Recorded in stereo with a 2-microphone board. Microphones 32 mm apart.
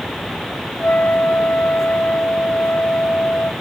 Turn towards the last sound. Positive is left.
turn(degrees=60)  # may be behind; listen again after turning